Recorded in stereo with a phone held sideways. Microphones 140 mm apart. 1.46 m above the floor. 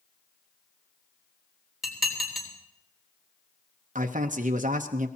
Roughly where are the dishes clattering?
Centre.